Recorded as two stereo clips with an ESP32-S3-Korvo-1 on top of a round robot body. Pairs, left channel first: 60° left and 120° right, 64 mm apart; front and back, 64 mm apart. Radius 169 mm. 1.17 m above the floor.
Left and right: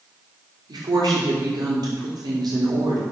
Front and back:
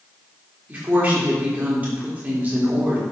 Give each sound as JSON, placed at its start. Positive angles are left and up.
{"t": 0.7, "sound": "a woman speaking", "azimuth_deg": -115, "distance_m": 3.5}